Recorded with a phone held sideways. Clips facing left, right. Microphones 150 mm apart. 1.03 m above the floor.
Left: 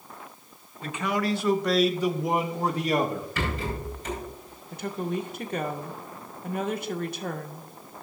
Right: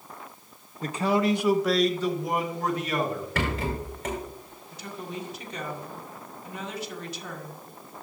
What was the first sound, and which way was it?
A man speaking, 40° right (ahead or behind).